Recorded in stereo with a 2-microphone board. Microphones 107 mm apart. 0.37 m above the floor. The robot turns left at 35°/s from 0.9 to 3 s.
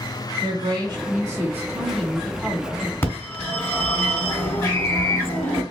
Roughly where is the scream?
Centre.